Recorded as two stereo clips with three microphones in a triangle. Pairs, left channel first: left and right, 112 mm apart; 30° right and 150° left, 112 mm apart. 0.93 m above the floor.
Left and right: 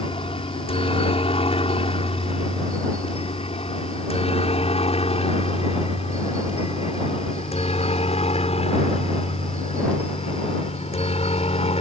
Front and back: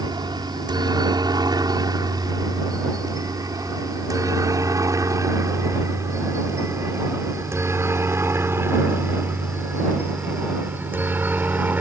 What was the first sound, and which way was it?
A helicopter, 105° left.